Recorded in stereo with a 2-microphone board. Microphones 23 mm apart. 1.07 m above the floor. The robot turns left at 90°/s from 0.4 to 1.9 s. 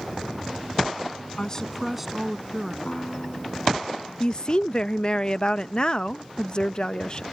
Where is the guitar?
40° left (ahead or behind).